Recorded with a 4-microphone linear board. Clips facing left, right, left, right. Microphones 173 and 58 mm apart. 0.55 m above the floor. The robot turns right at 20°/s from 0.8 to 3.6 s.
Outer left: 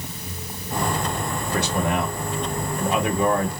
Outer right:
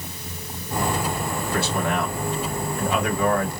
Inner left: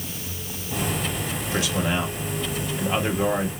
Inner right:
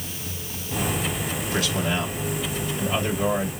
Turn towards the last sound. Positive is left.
turn(degrees=70)